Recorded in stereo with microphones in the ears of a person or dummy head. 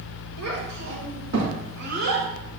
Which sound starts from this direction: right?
A child speaking, at 0.4 s.